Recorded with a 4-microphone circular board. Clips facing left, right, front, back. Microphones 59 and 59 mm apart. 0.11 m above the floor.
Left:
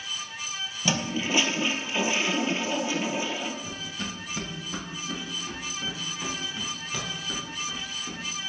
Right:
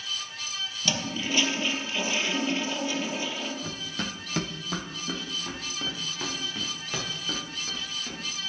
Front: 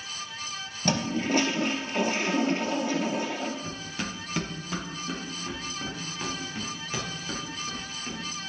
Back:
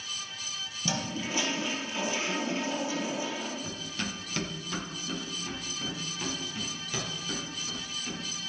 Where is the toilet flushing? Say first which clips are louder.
Left 3 dB, front 7 dB; 20° left, 1.4 m.